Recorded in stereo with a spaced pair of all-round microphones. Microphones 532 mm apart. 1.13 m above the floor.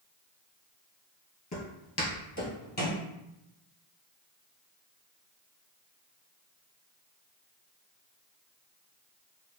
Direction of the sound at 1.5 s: 30° left (ahead or behind).